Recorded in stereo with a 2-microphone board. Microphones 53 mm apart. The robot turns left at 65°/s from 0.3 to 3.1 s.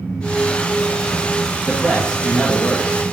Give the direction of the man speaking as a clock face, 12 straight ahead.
5 o'clock.